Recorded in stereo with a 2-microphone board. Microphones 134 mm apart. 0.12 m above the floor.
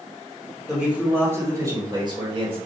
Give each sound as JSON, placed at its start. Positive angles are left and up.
{"t": 0.7, "sound": "a man speaking", "side_deg": -5, "distance_m": 1.9}